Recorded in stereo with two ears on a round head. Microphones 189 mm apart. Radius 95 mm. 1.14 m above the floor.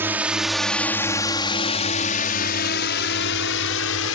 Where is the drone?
10° right (ahead or behind); by 4.2 s 70° left (ahead or behind).